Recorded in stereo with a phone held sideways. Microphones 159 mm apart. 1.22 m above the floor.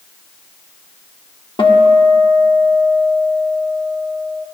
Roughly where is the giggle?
No giggle in this recording.